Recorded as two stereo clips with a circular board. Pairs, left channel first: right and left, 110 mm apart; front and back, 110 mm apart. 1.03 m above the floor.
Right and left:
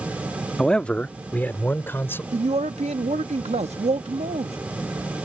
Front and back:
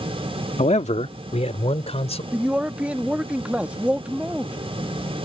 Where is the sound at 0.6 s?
5° right; by 2.2 s 20° right.